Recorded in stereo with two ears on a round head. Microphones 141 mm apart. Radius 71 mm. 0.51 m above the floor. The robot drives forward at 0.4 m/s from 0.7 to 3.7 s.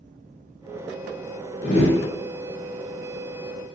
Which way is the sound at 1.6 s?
85° left.